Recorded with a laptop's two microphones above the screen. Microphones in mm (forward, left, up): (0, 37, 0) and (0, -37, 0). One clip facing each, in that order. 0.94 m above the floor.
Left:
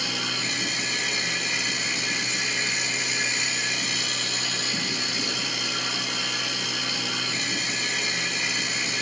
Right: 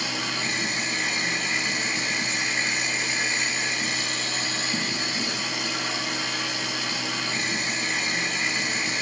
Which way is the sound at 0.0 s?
35° right (ahead or behind).